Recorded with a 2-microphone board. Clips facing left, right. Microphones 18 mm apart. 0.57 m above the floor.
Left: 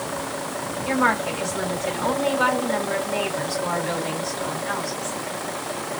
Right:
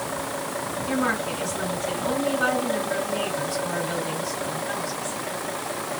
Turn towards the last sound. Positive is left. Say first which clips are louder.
# left 5 dB
turn(degrees=65)  # may be behind; listen again after turning